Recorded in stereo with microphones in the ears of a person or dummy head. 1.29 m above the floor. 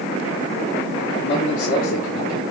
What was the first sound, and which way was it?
A man speaking, 70° left (ahead or behind).